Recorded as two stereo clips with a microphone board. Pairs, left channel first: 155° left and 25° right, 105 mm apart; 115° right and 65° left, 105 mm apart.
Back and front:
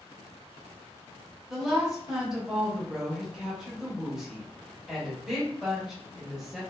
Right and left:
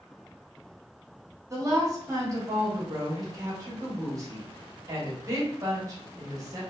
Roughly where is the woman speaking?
Ahead left.